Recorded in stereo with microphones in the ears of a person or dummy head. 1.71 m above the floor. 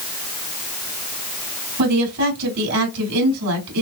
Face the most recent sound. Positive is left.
turn(degrees=-55)  # may be behind; listen again after turning